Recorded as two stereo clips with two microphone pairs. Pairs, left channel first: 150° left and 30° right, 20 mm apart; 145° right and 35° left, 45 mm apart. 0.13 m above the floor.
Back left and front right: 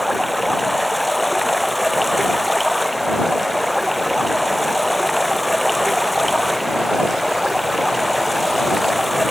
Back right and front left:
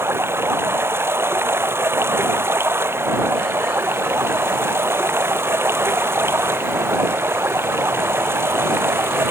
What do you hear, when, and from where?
0.0 s running water: 60° left